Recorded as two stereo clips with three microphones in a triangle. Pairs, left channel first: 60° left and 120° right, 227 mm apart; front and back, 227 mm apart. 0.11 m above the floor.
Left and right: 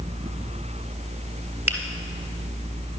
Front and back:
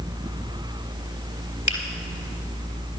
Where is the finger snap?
45° right, 2 m.